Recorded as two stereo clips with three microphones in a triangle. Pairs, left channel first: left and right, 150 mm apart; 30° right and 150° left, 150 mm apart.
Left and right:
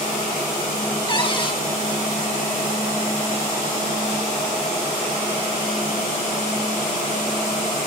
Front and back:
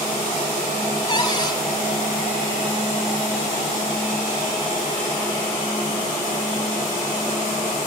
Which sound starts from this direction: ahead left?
A cupboard door, at 1.1 s.